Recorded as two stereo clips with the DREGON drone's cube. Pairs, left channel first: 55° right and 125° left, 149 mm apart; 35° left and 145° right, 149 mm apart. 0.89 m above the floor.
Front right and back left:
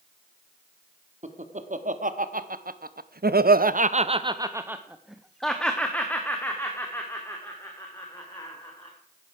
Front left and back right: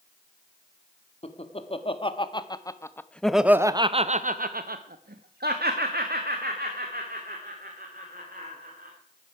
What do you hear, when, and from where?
1.2 s laughter: 85° left, 1.7 m; by 8.9 s 125° right, 3 m